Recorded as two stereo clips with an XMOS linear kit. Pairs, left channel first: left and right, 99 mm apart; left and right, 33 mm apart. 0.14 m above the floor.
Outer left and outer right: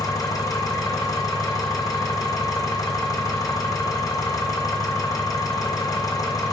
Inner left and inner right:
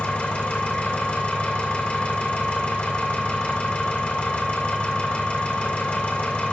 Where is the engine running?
35° left (ahead or behind), 2.5 m.